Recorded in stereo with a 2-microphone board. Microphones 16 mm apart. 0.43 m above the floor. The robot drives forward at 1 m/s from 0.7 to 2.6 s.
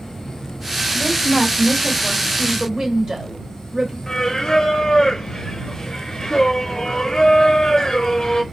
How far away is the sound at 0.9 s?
About 2.5 m.